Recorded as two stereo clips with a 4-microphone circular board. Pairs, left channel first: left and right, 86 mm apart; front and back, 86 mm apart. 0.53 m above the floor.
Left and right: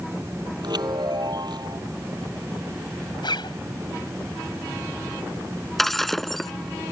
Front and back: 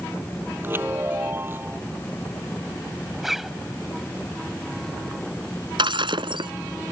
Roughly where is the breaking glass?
Behind.